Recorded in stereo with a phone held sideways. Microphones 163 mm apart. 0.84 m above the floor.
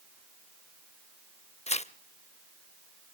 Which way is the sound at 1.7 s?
40° left (ahead or behind).